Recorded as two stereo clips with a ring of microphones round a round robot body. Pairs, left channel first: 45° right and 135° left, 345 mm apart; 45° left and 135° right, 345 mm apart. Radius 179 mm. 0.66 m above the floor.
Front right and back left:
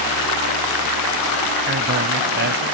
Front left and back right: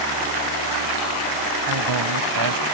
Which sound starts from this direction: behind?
A man speaking, at 1.7 s.